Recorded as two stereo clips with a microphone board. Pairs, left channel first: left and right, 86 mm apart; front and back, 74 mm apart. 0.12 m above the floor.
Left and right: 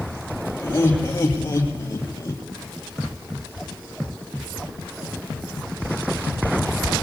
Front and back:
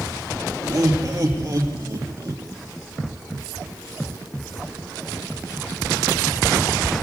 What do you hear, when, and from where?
0.6 s laughter: 150° left, 5.5 m; by 2.4 s 145° left, 3.5 m